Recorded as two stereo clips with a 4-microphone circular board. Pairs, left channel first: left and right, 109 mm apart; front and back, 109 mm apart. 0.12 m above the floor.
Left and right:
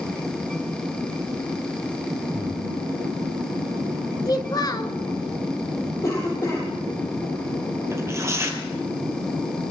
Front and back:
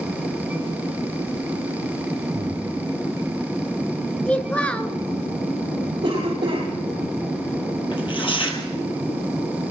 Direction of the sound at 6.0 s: 145° left.